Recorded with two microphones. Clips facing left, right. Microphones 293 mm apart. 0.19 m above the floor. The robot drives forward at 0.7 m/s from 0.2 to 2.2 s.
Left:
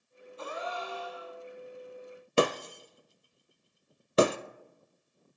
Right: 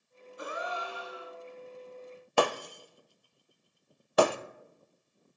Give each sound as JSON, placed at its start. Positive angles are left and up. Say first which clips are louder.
{"t": 0.4, "sound": "a gasp", "louder": "even", "side_deg": -15, "distance_m": 1.7}
{"t": 2.4, "sound": "breaking glass", "louder": "left 2 dB", "side_deg": 25, "distance_m": 0.5}